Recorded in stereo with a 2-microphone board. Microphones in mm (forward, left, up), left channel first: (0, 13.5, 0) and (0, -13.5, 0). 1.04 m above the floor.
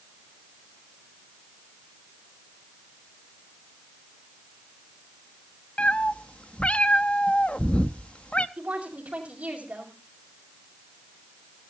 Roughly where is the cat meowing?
Left.